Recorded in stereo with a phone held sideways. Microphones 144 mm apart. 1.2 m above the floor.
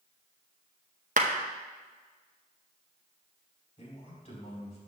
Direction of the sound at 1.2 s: 60° right (ahead or behind).